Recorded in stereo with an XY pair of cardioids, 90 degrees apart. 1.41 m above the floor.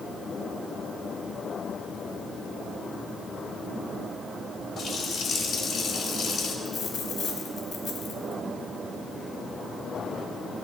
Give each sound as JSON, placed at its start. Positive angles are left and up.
{"t": 4.8, "sound": "a running tap", "azimuth_deg": 65, "distance_m": 3.5}
{"t": 6.7, "sound": "a dropped coin", "azimuth_deg": 70, "distance_m": 4.0}